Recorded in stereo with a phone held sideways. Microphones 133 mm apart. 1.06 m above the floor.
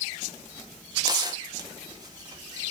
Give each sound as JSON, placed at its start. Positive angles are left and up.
{"t": 1.0, "sound": "tearing paper", "side_deg": -30, "distance_m": 2.0}